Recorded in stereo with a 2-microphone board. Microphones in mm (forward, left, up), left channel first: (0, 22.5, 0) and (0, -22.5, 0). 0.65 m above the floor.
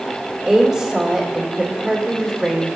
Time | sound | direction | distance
0.5 | a woman speaking | 5° right (ahead or behind) | 1.9 m